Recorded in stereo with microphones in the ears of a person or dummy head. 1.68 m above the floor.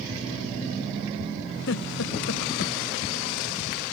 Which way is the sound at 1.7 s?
90° left.